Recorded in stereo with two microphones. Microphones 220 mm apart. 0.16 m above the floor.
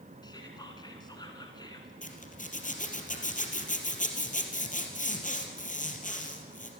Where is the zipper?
35° left (ahead or behind), 3 m.